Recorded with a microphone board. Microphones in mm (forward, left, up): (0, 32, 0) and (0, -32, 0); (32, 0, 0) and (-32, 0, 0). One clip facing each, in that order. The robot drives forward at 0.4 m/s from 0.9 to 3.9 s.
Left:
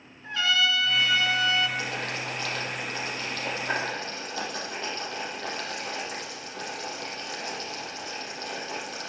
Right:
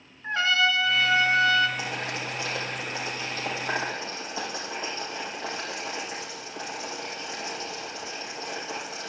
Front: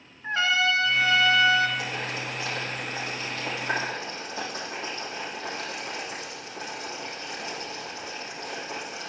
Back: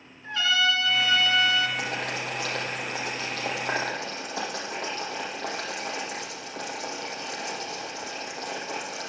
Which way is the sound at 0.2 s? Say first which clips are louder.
Right 2 dB, front 1 dB; 45° right.